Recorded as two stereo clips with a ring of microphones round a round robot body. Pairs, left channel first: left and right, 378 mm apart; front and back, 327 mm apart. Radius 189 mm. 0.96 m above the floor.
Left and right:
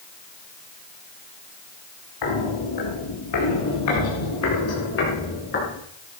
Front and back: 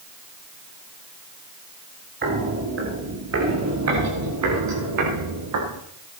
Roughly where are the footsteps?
Behind left.